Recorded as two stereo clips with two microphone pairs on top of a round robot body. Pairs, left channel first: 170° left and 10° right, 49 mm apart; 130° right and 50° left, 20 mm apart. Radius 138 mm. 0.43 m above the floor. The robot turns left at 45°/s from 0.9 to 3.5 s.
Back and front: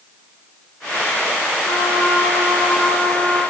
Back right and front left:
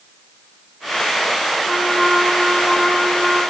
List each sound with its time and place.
1.6 s a trumpet: 165° left, 2.5 m; by 3.4 s 85° left, 2.5 m